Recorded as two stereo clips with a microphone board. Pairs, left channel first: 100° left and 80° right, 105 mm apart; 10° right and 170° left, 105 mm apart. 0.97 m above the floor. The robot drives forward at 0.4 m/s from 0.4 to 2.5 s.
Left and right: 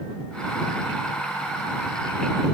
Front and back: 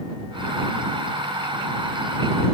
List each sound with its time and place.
Only background noise.